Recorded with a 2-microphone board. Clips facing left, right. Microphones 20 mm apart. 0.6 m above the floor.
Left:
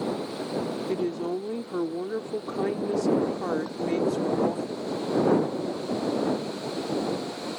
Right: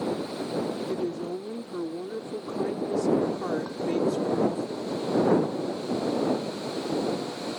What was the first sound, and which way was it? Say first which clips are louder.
A woman speaking: left 2 dB; 40° left (ahead or behind).